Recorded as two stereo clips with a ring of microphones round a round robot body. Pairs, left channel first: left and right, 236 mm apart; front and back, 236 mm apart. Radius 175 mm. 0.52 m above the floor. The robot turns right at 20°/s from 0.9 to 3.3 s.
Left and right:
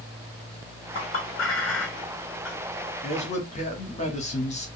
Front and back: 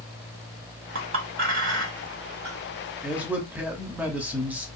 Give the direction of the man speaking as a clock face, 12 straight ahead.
9 o'clock.